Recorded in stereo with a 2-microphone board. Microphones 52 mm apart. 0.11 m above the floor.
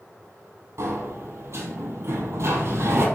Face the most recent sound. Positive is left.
turn(degrees=-65)  # may be behind; listen again after turning